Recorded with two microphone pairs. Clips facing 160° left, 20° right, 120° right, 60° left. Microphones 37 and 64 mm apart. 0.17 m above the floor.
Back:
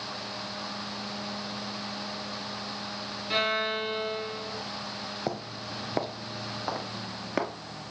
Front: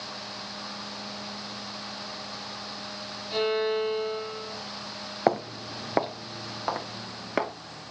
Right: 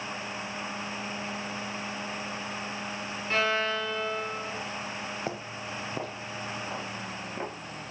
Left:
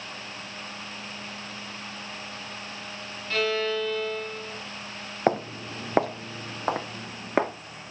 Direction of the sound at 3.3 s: 175° left.